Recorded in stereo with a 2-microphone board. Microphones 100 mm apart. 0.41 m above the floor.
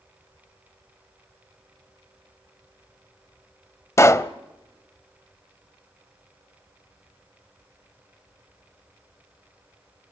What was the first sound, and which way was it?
A pop, 30° left (ahead or behind).